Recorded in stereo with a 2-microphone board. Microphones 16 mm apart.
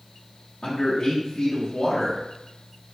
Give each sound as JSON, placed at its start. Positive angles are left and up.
{"t": 0.6, "sound": "a man speaking", "side_deg": 55, "distance_m": 0.8}